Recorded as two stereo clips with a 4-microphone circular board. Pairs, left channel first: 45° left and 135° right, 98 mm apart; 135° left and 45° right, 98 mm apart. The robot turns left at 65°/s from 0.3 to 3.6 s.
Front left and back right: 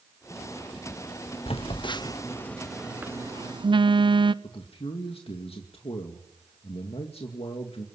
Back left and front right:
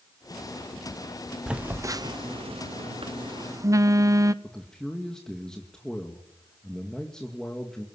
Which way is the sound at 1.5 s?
40° left.